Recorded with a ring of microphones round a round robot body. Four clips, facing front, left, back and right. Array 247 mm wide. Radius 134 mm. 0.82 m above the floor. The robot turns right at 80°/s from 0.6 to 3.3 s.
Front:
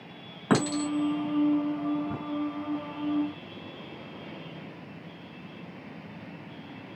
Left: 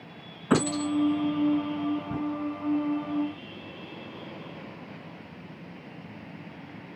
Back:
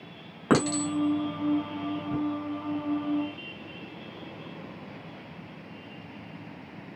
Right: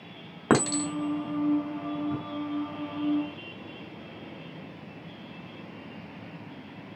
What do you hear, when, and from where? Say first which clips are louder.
0.5 s a clink: even, back 1 dB; 100° right, 1.3 m; by 2.2 s 30° left, 1.3 m